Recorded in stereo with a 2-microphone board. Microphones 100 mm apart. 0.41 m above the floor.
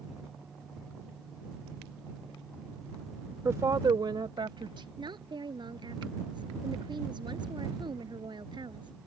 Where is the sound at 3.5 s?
25° right (ahead or behind); by 4.9 s 55° right (ahead or behind).